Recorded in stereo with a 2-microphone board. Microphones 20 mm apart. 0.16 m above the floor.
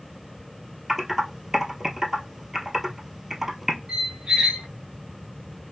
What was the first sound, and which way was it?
Typing on a keyboard, 20° right (ahead or behind).